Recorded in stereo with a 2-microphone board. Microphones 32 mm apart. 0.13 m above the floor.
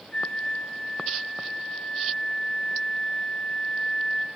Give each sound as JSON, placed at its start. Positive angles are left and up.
{"t": 0.1, "sound": "a flute", "side_deg": 30, "distance_m": 4.0}